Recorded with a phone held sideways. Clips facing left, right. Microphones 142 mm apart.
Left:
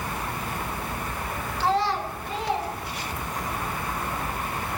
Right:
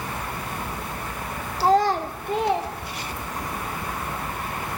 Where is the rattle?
No rattle in this recording.